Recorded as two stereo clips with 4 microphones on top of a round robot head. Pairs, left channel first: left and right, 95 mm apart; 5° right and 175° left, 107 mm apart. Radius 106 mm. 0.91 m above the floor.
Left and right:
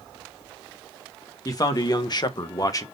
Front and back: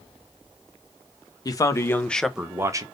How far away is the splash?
I don't hear a splash.